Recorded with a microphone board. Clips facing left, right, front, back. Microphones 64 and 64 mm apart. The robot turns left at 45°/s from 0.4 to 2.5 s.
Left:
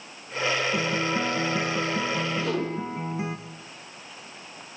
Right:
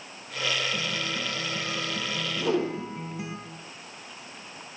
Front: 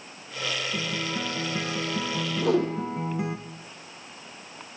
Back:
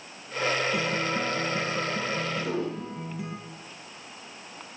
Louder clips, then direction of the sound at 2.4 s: Right 1 dB, front 6 dB; 15° right.